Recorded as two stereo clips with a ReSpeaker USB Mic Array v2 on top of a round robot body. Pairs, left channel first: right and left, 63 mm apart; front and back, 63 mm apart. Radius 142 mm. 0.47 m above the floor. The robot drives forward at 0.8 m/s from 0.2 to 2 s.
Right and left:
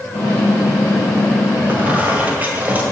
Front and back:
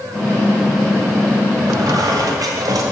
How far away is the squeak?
About 1.7 m.